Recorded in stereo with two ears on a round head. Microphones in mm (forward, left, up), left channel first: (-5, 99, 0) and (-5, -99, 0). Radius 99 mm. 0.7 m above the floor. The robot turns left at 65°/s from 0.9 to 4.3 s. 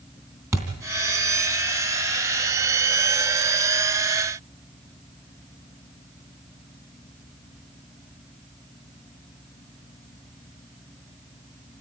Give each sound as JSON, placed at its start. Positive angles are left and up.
{"t": 0.5, "sound": "a thud", "side_deg": -15, "distance_m": 3.0}